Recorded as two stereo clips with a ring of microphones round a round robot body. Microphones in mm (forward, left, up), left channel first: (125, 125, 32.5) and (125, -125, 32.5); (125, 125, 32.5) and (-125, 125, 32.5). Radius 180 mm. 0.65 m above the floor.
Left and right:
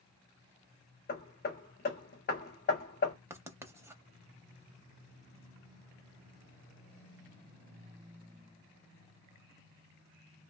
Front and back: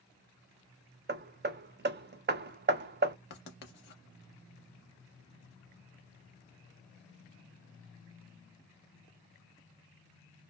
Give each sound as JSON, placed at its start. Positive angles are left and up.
{"t": 1.1, "sound": "hammering", "azimuth_deg": 140, "distance_m": 0.5}
{"t": 3.3, "sound": "writing", "azimuth_deg": -15, "distance_m": 0.5}